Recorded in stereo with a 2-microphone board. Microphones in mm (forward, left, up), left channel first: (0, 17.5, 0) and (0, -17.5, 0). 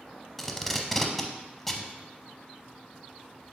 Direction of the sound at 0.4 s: 5° left (ahead or behind).